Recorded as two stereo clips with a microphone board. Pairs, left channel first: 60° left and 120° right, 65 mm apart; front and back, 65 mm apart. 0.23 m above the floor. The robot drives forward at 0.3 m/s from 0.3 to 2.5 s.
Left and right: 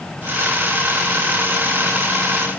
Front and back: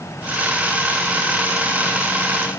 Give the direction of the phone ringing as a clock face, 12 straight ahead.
No phone ringing in this recording.